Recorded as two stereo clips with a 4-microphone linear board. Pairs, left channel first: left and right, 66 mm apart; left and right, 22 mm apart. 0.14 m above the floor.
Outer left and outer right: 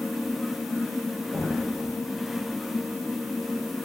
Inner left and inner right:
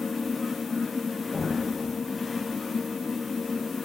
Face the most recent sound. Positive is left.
turn(degrees=30)  # may be behind; listen again after turning